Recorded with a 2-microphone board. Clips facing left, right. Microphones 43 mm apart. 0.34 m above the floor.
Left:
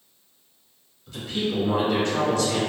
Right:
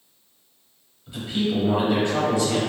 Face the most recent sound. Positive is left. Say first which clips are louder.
# right 2 dB
turn(degrees=-20)  # may be behind; listen again after turning